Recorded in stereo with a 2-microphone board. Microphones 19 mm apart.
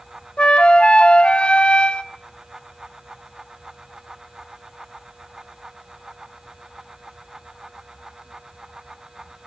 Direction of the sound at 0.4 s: 65° left (ahead or behind).